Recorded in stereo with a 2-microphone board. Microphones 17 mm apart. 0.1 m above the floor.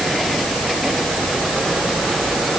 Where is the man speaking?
I don't hear a man speaking.